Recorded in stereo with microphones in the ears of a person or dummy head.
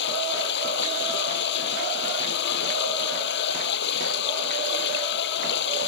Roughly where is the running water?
Left.